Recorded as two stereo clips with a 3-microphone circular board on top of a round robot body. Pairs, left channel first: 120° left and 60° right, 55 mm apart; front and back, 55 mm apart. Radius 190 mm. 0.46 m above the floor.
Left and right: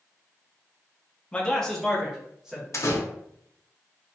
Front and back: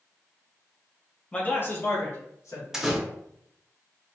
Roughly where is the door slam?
Left.